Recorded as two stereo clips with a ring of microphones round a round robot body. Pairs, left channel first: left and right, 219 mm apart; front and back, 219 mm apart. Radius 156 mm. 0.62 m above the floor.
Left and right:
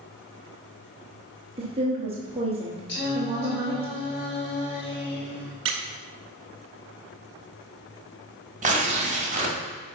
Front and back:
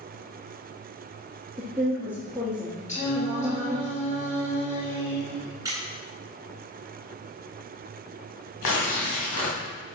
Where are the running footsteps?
I don't hear running footsteps.